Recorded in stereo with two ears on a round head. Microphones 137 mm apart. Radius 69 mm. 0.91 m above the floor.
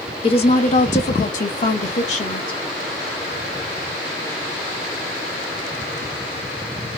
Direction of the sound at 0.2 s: 35° left (ahead or behind).